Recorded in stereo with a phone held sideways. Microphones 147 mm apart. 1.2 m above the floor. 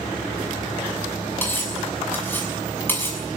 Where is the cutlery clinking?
15° left (ahead or behind), 6 m.